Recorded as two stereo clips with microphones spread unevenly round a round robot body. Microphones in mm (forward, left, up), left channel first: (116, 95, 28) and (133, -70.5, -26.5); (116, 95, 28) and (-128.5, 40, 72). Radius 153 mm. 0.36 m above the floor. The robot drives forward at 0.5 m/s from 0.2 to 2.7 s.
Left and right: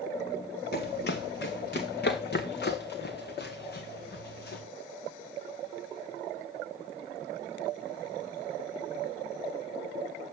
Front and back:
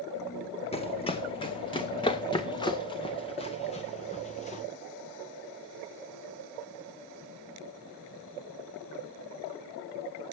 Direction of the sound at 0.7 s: 80° left.